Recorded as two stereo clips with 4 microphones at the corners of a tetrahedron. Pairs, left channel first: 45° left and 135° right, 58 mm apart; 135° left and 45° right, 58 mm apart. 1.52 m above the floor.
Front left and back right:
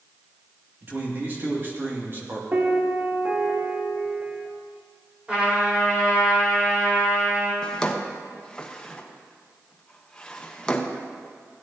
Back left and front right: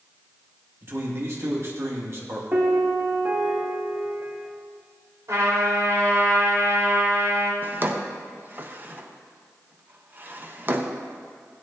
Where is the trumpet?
65° right, 4 m.